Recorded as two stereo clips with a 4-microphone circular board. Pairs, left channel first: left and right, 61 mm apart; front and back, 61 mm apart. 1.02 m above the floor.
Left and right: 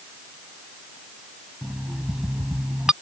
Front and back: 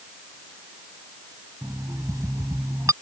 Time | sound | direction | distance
1.6 | an alarm clock | 170° right | ?